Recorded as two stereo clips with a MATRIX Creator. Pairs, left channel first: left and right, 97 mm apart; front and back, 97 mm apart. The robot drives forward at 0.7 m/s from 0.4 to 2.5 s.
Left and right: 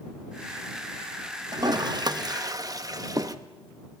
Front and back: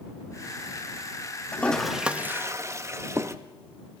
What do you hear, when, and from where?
1.5 s a toilet flushing: 65° right, 0.8 m; by 3.4 s 130° right, 0.9 m